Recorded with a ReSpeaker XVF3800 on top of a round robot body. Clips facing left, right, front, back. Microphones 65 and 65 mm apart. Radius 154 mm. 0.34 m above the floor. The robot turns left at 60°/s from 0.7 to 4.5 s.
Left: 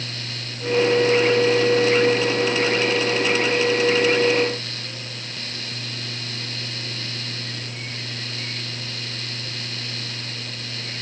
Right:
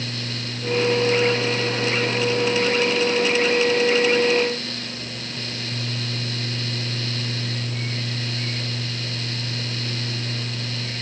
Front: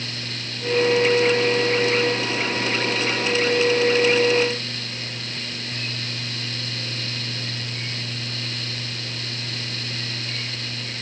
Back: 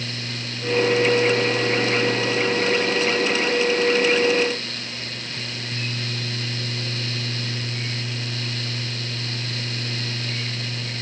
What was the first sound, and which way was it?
Only background noise.